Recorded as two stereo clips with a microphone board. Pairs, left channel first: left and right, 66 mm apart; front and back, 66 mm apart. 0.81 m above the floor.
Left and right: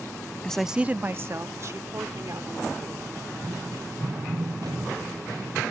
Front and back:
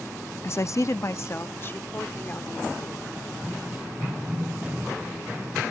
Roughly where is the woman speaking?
Ahead left.